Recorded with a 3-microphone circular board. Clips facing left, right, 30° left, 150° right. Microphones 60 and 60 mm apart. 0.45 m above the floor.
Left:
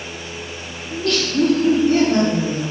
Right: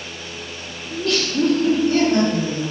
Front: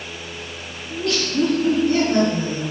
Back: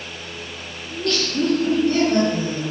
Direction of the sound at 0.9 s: 45° right.